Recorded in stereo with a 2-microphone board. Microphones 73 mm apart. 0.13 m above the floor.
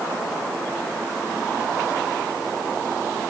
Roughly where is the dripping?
No dripping in this recording.